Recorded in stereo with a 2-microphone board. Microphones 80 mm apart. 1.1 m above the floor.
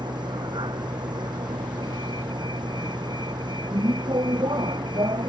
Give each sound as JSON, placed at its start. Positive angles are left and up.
{"t": 0.0, "sound": "a vehicle", "side_deg": -65}